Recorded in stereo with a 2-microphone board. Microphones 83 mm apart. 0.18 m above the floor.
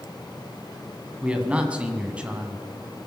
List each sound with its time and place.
1.2 s a man speaking: 15° right (ahead or behind), 1.5 m